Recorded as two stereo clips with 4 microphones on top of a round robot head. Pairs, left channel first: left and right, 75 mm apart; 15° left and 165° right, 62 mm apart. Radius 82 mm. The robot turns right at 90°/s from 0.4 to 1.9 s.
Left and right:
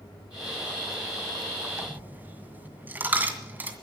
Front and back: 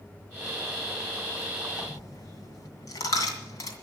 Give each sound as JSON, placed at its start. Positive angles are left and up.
{"t": 1.8, "sound": "a dropped coin", "azimuth_deg": -35, "distance_m": 2.0}